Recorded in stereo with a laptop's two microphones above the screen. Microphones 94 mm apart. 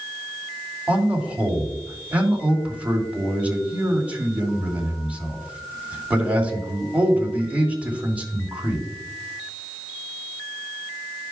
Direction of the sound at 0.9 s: 15° right (ahead or behind).